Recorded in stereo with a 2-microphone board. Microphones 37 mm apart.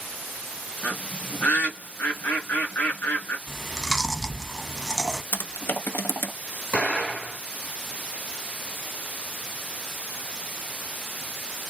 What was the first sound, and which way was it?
A bird, 65° left (ahead or behind).